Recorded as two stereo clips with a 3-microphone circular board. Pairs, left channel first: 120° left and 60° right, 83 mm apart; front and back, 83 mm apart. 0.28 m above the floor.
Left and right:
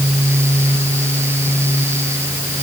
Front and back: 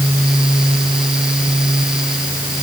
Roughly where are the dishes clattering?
No dishes clattering in this recording.